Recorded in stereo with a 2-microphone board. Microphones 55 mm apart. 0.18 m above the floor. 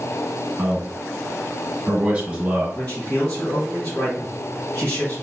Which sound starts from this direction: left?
A man speaking, at 2.8 s.